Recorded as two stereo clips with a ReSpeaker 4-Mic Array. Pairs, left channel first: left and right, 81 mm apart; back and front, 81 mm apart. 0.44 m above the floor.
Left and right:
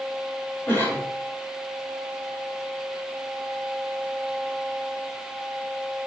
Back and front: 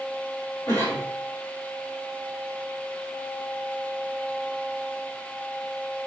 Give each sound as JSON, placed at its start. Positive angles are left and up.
{"t": 0.7, "sound": "a cough", "azimuth_deg": 140, "distance_m": 1.9}